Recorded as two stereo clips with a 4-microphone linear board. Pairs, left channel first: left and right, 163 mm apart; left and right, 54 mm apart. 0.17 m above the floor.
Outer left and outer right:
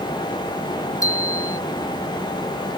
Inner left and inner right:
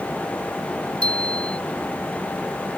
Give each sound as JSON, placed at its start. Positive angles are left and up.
{"t": 1.0, "sound": "a bicycle bell", "side_deg": 20}